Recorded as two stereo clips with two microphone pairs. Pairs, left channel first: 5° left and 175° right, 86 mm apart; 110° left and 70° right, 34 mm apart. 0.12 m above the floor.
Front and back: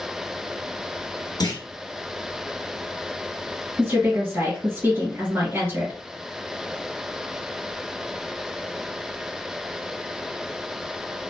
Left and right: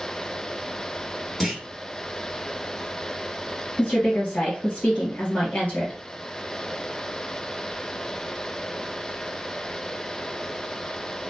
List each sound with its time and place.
1.4 s a clunk: 25° left, 0.9 m
3.8 s a woman speaking: 125° left, 1.9 m